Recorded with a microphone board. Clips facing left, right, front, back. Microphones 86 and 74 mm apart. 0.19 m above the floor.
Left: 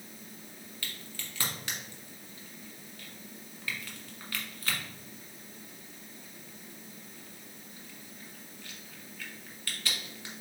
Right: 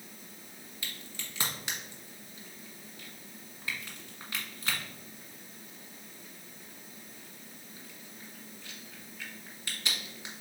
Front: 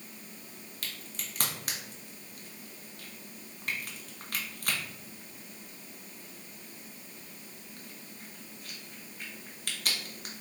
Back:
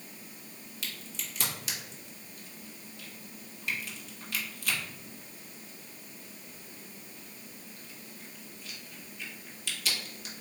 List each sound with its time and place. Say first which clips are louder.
0.8 s a crack: even, back 1 dB; 20° right, 1.1 m